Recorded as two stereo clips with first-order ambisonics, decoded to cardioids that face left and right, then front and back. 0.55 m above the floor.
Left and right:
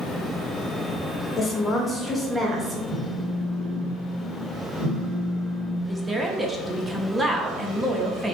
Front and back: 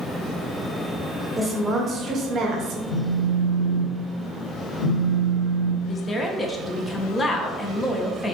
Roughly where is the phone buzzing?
Ahead.